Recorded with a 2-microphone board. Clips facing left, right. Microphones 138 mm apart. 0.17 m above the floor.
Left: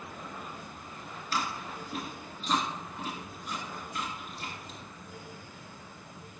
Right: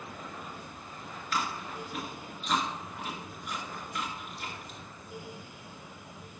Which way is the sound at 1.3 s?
40° left (ahead or behind).